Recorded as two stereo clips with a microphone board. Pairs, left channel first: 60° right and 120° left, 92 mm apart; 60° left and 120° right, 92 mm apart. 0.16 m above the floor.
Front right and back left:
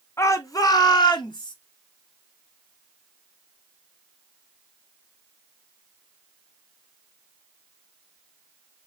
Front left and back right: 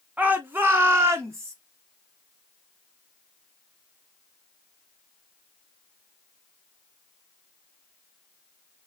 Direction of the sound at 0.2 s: 60° right.